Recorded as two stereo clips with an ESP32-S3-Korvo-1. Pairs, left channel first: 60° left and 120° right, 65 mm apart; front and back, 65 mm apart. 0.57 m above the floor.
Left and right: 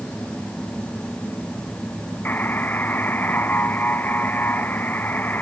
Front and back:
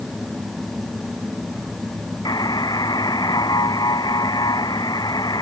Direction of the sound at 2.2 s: Straight ahead.